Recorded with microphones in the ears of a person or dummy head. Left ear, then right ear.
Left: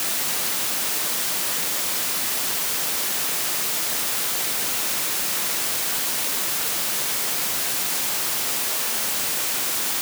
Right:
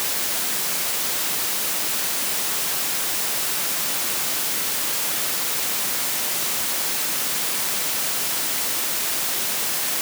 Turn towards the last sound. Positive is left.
No sound to turn to.